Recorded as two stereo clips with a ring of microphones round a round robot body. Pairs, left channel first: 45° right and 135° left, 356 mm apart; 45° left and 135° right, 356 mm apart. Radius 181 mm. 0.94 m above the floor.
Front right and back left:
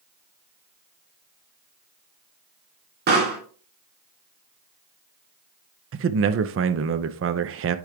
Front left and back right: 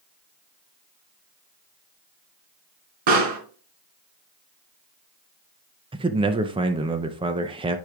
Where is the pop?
160° right, 3 m.